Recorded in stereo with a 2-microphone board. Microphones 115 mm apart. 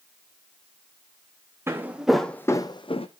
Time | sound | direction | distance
1.7 | footsteps | 20° right (ahead or behind) | 0.9 m